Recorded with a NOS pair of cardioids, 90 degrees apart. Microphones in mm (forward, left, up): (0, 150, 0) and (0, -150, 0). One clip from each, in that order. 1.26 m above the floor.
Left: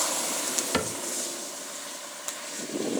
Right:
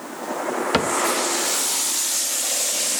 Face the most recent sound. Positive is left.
turn(degrees=-40)